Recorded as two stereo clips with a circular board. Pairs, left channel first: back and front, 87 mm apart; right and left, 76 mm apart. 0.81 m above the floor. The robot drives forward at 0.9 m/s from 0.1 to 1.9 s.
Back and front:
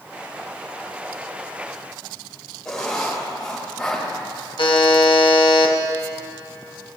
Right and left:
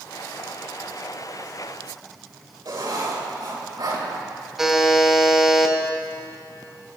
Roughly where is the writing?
Left.